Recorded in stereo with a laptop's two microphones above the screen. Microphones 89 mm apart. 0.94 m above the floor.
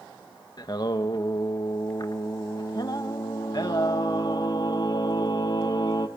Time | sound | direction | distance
0.6 | singing | 50° left (ahead or behind) | 1.1 m